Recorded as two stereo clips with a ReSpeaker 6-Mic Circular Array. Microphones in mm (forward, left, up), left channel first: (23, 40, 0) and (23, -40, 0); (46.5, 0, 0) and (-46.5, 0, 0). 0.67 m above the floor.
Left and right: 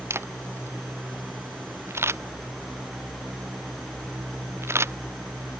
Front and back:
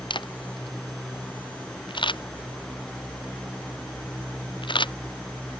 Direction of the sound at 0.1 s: 30° right.